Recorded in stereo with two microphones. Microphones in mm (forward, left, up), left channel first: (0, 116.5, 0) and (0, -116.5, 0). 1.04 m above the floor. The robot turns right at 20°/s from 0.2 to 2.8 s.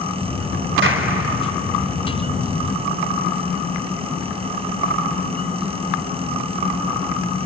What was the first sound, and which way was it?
A clap, 55° right (ahead or behind).